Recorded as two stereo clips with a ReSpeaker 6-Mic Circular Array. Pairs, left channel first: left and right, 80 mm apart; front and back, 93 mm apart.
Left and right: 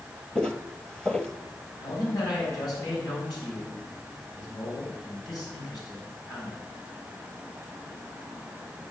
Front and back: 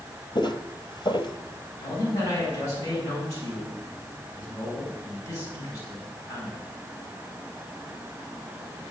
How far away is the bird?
No bird in this recording.